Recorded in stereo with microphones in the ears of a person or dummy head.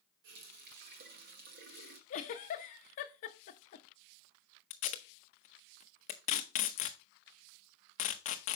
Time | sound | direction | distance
0.2 | a running tap | 60° right (ahead or behind) | 1.0 m
2.1 | a giggle | 45° left (ahead or behind) | 0.8 m
4.7 | tape being pulled | 45° left (ahead or behind) | 0.7 m